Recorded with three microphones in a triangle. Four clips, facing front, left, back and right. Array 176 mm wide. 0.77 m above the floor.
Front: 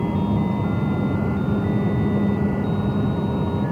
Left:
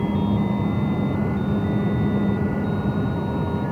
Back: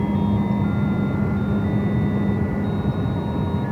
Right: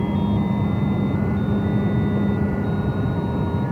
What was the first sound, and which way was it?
Only background noise.